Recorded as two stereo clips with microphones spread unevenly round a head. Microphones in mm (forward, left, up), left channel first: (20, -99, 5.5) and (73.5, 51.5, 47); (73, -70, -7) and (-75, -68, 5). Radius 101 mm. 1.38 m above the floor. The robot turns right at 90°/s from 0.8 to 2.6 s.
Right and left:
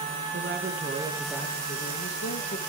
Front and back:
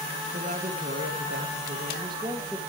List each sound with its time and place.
0.3 s a woman speaking: 120° left, 2.5 m; by 2.6 s 80° right, 2.5 m